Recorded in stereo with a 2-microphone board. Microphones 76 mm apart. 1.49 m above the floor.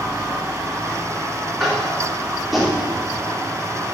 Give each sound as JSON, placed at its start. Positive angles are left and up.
{"t": 1.6, "sound": "tapping", "side_deg": 0, "distance_m": 3.0}